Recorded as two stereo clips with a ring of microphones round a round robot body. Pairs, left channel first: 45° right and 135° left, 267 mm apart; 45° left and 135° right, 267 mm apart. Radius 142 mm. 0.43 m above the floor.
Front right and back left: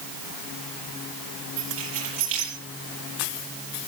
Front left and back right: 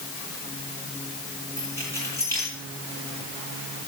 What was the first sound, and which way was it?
Keys jangling, 125° left.